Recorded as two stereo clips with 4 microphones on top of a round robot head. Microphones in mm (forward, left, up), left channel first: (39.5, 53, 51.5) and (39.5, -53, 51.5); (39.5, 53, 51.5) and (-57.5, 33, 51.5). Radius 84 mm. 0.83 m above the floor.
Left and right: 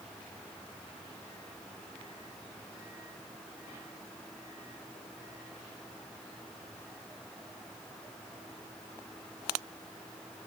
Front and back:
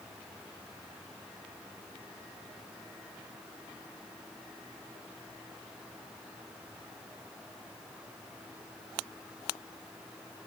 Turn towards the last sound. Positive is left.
No sound to turn to.